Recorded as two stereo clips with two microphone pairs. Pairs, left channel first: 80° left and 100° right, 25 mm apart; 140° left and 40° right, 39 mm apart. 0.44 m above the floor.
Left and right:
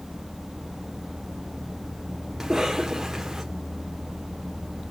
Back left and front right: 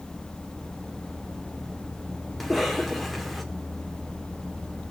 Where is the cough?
125° right, 0.8 m.